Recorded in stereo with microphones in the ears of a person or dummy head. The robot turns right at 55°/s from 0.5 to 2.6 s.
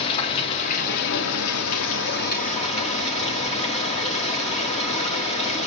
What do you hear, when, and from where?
0.0 s running water: 35° left, 3 m; by 5.7 s 150° left, 3 m